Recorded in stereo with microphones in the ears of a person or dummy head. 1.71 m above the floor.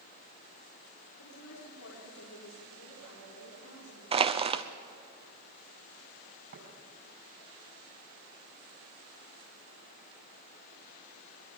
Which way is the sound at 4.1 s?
25° right (ahead or behind).